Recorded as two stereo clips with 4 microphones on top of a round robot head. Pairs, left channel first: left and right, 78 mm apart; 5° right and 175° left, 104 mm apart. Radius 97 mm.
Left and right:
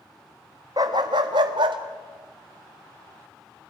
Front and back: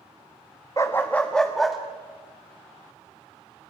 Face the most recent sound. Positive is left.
turn(degrees=-95)